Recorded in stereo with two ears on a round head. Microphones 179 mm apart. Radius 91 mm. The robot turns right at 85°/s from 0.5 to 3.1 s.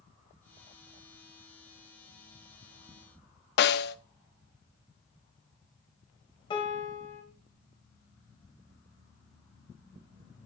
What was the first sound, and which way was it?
A snare drum, 60° left (ahead or behind).